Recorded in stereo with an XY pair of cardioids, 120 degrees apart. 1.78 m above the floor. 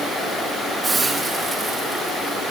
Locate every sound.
0.8 s a hiss: 20° right, 3 m